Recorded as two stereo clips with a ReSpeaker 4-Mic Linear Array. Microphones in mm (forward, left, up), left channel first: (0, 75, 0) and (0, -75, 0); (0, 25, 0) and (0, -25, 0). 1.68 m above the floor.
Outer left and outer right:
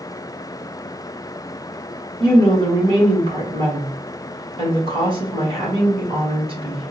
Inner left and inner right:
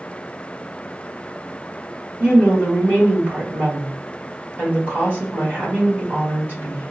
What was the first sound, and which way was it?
A woman speaking, 35° right (ahead or behind).